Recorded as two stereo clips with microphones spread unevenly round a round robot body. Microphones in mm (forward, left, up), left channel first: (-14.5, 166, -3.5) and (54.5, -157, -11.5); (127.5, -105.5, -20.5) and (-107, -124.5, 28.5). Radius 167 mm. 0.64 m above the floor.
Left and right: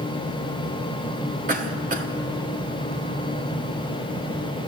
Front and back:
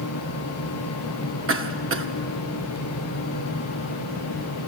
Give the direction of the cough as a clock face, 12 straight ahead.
5 o'clock.